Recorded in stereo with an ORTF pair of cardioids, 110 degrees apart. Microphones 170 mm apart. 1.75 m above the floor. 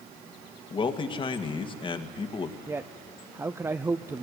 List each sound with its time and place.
0.7 s a man speaking: 30° left, 1.9 m
2.7 s a man speaking: 15° right, 0.5 m